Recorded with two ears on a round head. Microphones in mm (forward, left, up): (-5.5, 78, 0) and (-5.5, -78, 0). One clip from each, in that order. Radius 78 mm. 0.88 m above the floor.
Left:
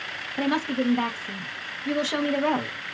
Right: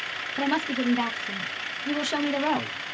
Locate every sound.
0.4 s a woman speaking: 15° right (ahead or behind), 0.7 m